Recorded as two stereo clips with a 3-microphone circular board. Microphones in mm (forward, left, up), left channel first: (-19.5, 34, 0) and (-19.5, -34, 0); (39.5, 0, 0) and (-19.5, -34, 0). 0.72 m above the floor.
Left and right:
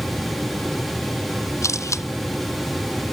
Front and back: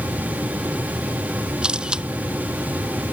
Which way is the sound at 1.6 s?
135° left.